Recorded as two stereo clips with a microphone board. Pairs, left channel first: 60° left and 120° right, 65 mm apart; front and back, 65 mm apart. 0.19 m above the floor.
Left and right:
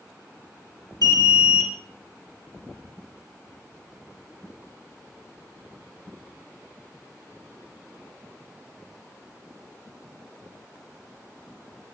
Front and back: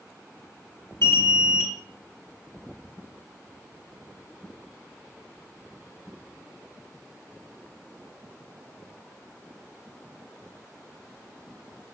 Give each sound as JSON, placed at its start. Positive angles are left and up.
{"t": 1.0, "sound": "an alarm", "azimuth_deg": 40, "distance_m": 3.0}